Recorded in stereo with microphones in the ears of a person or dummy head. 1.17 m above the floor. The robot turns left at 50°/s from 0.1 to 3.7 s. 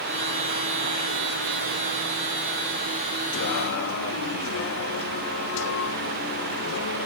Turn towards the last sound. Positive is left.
turn(degrees=70)  # may be behind; listen again after turning